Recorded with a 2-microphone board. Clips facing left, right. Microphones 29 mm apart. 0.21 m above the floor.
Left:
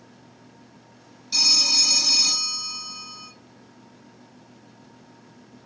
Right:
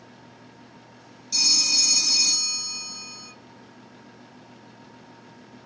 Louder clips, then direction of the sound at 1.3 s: Left 2 dB; 30° left (ahead or behind).